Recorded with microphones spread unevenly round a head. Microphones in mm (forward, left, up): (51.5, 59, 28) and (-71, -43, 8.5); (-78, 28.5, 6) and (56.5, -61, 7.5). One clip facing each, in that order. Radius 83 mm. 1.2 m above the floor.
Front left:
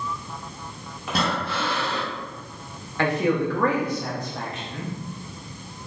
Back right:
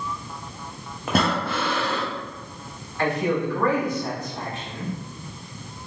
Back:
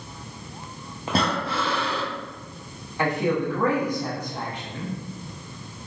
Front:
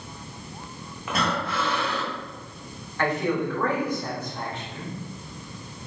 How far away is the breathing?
About 0.7 m.